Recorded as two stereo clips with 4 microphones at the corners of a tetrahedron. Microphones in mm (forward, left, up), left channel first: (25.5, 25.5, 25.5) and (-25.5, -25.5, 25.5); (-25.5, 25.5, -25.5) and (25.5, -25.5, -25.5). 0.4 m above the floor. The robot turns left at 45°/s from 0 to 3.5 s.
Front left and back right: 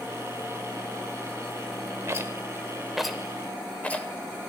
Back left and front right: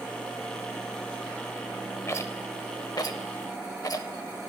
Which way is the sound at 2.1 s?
Straight behind.